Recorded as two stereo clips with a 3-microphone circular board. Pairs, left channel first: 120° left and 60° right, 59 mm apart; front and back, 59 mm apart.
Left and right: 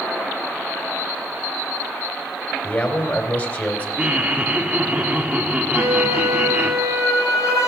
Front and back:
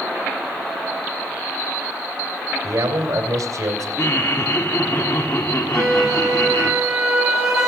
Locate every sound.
2.6 s a man speaking: straight behind, 2.5 m
4.0 s laughter: 5° left, 1.9 m
5.7 s a flute: 95° left, 6 m